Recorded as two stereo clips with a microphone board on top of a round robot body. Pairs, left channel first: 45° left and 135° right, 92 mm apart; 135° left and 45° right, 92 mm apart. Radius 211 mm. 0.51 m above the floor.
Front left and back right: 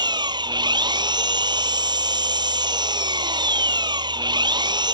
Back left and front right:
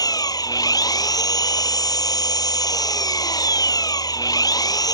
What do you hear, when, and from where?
0.0 s an engine running: 175° right